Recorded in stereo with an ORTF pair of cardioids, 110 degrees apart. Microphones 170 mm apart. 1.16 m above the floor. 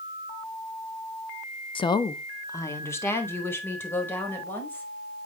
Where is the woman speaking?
30° left, 0.8 m; by 4.9 s 10° left, 5.5 m.